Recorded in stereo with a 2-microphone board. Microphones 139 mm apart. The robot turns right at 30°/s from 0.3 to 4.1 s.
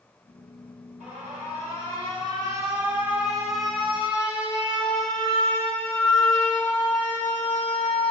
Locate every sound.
1.0 s an alarm: 80° right, 2.5 m; by 8.1 s 15° left, 2.5 m